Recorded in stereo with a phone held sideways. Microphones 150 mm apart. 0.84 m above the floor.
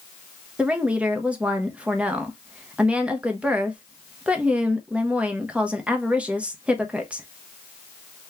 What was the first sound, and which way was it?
A woman speaking, 5° right (ahead or behind).